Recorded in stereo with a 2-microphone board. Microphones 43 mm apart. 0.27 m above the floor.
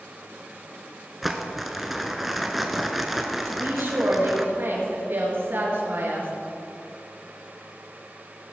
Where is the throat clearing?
I don't hear throat clearing.